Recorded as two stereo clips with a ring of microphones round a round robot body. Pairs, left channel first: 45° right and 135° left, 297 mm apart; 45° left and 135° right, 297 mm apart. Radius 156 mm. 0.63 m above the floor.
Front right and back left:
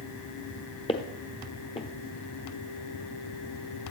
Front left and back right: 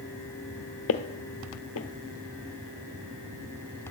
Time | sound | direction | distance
0.9 | footsteps | 20° left | 0.8 m